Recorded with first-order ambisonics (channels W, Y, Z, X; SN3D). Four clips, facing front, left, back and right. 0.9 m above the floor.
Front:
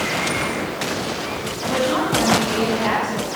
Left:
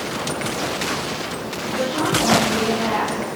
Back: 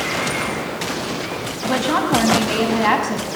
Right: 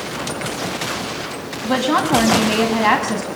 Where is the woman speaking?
115° right, 8 m.